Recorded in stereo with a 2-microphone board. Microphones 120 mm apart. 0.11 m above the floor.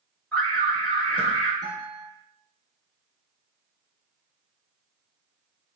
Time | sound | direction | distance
0.3 | an alarm | 15° left (ahead or behind) | 1.7 m
1.6 | a guitar | 40° right (ahead or behind) | 1.1 m